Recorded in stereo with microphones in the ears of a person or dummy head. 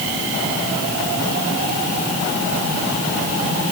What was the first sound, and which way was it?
Only background noise.